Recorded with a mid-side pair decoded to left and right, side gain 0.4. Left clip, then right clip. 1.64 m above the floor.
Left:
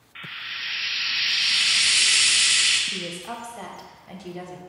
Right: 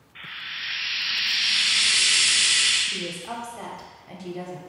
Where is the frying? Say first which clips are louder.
Left 1 dB; 45° left, 0.8 m.